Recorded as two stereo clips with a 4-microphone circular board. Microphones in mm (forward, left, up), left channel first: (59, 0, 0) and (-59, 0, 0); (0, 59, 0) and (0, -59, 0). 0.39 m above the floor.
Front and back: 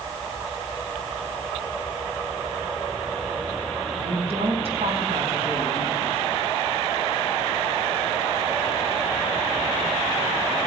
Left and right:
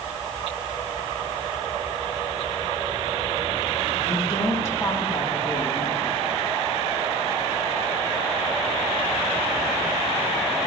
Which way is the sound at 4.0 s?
155° left.